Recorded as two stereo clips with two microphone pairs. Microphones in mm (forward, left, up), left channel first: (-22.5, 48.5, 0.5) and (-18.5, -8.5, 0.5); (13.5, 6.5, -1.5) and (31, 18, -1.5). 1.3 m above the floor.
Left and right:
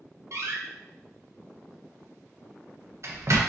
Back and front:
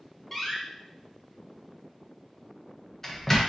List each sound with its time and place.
0.3 s a door slam: 70° right, 0.6 m